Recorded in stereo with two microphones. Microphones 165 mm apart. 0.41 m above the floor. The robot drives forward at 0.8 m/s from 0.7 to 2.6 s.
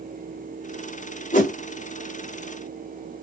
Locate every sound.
1.3 s a whoosh: 50° left (ahead or behind), 1.1 m